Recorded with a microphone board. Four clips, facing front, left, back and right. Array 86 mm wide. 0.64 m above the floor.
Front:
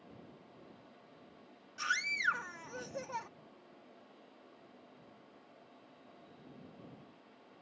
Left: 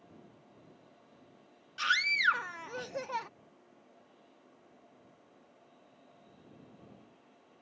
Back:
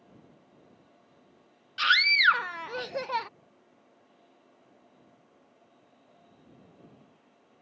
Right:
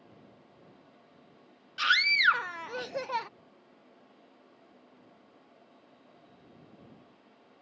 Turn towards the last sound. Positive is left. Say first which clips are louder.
# right 4 dB, back 12 dB
turn(degrees=-155)